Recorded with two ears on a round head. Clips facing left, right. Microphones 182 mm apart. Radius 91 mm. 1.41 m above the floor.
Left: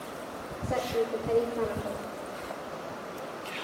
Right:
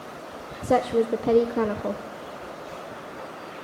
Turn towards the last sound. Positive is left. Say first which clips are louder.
# right 8 dB
turn(degrees=-70)  # may be behind; listen again after turning